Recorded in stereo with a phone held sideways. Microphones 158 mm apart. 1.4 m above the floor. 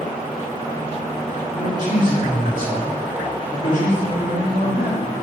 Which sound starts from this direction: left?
A man speaking, at 1.5 s.